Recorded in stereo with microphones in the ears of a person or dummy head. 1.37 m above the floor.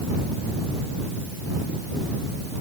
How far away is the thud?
I don't hear a thud.